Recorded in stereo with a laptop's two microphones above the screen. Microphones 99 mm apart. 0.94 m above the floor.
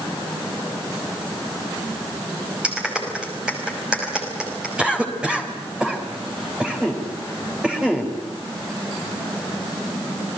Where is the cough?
10° right (ahead or behind), 3.5 m.